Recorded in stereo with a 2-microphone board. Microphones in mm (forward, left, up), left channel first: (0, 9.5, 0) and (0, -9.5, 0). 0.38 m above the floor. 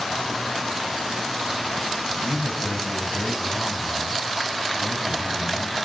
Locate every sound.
2.1 s a man speaking: 50° left (ahead or behind), 3 m